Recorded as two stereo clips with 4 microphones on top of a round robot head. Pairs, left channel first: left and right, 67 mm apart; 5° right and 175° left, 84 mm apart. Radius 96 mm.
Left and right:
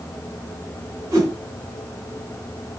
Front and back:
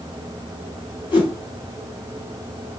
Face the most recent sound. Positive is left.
turn(degrees=-40)